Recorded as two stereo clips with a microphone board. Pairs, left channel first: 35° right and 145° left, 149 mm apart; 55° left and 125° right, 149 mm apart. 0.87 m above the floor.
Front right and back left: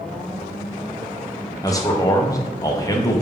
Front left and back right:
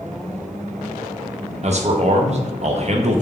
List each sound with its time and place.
1.6 s a man speaking: 95° right, 0.6 m